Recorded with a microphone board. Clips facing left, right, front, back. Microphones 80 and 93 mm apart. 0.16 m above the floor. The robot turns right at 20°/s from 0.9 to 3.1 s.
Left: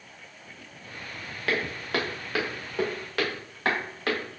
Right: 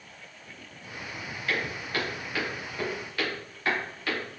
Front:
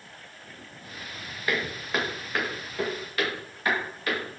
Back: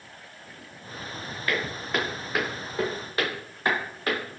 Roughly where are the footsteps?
Left.